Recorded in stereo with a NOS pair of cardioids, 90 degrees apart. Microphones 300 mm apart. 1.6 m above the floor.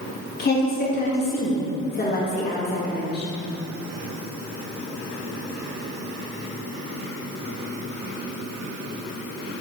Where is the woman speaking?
30° left, 2.5 m.